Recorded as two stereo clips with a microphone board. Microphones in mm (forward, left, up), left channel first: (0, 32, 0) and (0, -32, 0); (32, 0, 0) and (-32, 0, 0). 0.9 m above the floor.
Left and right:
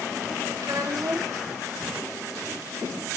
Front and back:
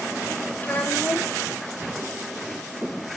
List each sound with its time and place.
0.6 s a child speaking: 65° right, 3 m